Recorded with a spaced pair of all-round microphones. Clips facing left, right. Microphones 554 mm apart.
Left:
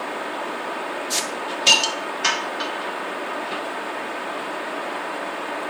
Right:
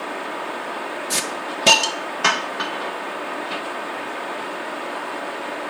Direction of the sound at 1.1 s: 70° right (ahead or behind).